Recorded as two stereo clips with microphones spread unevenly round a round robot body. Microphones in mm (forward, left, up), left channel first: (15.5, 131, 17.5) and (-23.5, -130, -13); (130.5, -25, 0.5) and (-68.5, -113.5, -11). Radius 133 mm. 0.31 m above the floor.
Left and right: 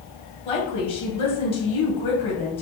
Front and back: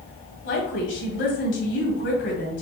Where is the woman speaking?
10° left, 2.5 m.